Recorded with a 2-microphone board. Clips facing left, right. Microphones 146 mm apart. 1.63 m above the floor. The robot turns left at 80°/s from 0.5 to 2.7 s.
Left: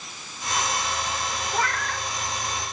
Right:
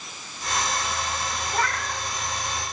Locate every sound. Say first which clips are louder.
1.5 s a cat meowing: even; 10° left, 1.4 m; by 2.1 s 30° right, 1.4 m